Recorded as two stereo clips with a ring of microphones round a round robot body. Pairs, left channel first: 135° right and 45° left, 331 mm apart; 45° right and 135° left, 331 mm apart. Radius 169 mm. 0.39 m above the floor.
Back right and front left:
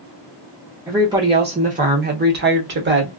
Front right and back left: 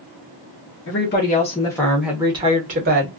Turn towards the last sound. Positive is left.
turn(degrees=90)